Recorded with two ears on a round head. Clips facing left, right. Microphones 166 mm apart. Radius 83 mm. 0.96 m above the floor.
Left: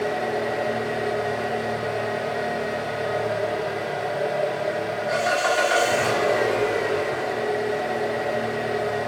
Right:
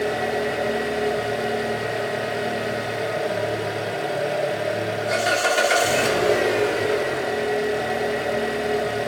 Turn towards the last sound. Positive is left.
turn(degrees=-35)  # may be behind; listen again after turning